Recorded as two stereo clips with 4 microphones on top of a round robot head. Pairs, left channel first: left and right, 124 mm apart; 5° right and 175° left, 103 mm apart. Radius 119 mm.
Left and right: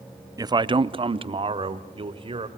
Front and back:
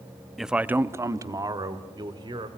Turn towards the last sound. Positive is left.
turn(degrees=-135)